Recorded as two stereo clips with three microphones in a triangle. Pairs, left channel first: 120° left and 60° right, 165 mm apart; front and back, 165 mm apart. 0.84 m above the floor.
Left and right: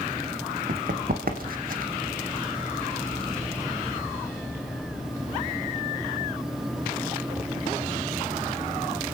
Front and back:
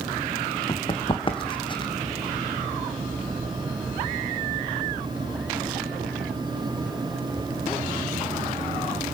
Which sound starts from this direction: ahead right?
Running footsteps, at 0.7 s.